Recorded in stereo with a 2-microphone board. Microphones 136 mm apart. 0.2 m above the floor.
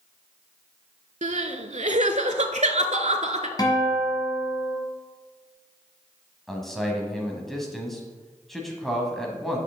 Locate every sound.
1.2 s crying: 60° right (ahead or behind), 0.5 m
3.6 s a guitar: 30° left (ahead or behind), 1.2 m
6.5 s a man speaking: centre (ahead or behind), 1.1 m